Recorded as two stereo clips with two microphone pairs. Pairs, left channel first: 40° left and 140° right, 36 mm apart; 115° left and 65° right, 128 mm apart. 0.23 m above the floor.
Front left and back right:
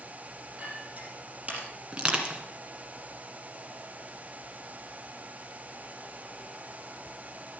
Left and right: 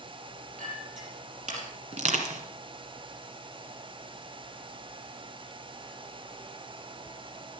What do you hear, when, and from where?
0.6 s a clink: 85° right, 5 m
1.9 s crushing: 80° right, 2 m